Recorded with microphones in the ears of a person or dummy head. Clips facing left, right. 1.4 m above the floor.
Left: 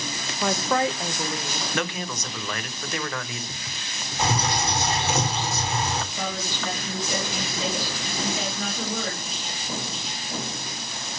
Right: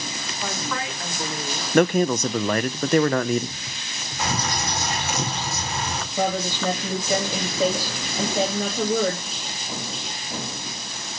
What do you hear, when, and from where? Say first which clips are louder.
0.4 s a woman speaking: left 7 dB; 60° left (ahead or behind), 1.3 m; by 1.6 s 10° right (ahead or behind), 1.7 m
1.7 s a man speaking: right 14 dB; 45° right (ahead or behind), 0.6 m
4.2 s a bird: left 2 dB; 25° left (ahead or behind), 5 m
6.2 s a woman speaking: right 7 dB; 35° right (ahead or behind), 3 m